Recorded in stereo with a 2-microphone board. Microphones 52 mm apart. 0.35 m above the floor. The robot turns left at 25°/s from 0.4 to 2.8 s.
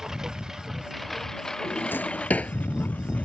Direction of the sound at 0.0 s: 5° right (ahead or behind).